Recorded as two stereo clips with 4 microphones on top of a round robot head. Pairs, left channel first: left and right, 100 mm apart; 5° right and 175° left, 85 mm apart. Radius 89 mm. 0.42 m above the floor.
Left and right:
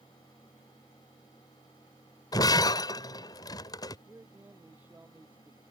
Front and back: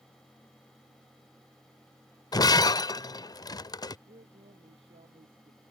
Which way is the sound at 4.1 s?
165° right.